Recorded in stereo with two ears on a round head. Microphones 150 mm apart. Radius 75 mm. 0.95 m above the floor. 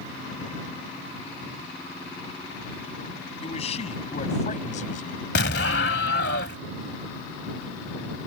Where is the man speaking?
40° left (ahead or behind); by 5.2 s 55° left (ahead or behind).